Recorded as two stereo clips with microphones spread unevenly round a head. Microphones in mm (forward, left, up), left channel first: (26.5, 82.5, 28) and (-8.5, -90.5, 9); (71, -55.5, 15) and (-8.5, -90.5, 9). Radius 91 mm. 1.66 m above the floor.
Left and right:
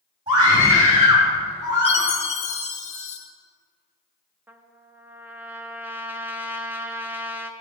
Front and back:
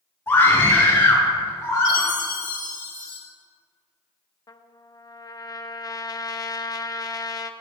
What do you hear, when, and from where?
0.3 s a scream: 40° right, 3 m; by 2.1 s 30° right, 4 m
1.9 s a chime: 35° left, 1.6 m
4.5 s a trumpet: 25° right, 0.6 m